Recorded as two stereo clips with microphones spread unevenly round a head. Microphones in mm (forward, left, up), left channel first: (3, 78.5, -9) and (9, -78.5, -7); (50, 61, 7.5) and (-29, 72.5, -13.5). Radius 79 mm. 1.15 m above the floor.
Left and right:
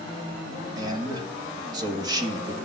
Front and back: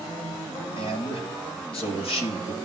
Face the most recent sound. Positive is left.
turn(degrees=-20)